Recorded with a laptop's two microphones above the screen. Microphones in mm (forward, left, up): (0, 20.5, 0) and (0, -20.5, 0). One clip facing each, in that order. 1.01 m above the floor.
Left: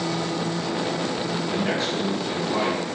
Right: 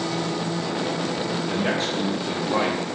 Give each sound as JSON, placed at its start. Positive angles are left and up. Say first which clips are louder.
{"t": 1.5, "sound": "a man speaking", "louder": "even", "side_deg": -50, "distance_m": 1.5}